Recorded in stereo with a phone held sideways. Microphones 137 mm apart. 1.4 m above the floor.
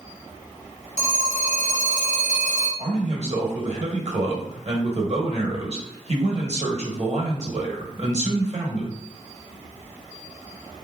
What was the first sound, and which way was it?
A phone ringing, 65° left (ahead or behind).